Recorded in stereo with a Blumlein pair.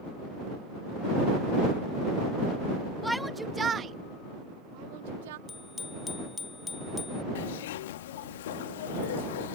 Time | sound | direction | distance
3.0 | a shout | 5° left | ?
5.5 | a bicycle bell | 15° left | ?
7.3 | a zipper | 55° left | ?